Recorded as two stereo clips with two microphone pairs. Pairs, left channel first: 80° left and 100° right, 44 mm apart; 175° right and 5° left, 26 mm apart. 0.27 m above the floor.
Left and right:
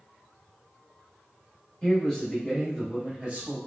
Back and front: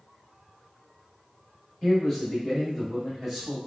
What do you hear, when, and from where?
1.8 s a man speaking: 120° left, 1.3 m; by 3.6 s 70° right, 1.4 m